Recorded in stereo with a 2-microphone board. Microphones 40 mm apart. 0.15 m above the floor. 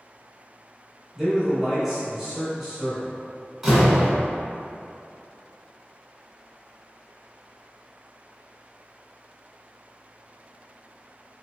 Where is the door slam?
5° right (ahead or behind), 1.3 m.